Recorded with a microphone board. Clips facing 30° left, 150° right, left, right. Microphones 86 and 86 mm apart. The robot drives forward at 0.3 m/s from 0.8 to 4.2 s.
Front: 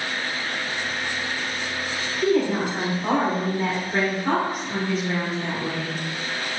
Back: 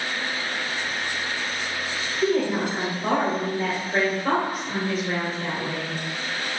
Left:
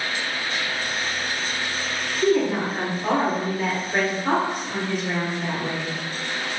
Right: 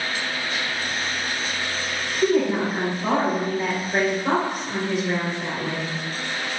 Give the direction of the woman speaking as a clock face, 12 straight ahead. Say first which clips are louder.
Front 1 dB, even; 5 o'clock.